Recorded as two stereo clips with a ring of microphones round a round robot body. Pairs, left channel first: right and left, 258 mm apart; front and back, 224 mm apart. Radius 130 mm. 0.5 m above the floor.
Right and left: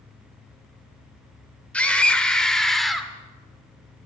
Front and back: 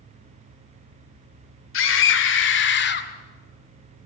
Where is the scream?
5° right, 2 m; by 3.1 s straight ahead, 1.6 m.